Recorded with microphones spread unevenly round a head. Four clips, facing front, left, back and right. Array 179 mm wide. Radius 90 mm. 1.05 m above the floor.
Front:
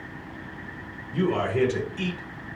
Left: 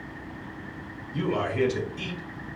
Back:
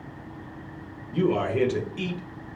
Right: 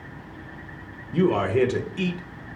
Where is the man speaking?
110° right, 1.3 m.